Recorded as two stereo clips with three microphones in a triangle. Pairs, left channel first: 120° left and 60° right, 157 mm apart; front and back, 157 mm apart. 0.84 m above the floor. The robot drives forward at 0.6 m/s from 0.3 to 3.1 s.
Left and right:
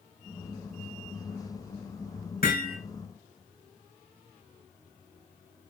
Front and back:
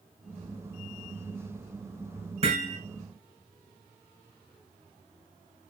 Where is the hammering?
135° left, 7.5 m.